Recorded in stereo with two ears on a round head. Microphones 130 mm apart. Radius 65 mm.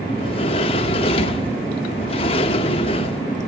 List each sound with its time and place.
0.2 s a sliding door: 40° left (ahead or behind), 1.0 m